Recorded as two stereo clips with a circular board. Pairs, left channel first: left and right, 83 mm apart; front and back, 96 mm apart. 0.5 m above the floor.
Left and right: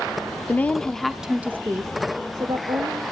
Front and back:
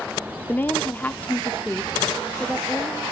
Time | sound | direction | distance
0.5 | a woman speaking | 50° left | 0.9 m